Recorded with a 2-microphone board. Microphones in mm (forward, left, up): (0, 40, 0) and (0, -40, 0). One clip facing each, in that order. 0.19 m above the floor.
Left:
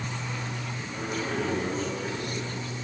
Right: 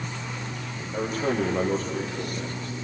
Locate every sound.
0.9 s a man speaking: 40° right (ahead or behind), 7 m